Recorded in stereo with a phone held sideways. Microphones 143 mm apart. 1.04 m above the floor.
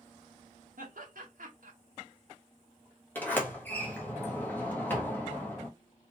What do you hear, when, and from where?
0.8 s laughter: 75° right (ahead or behind), 1.5 m
3.1 s a sliding door: 10° left (ahead or behind), 1.2 m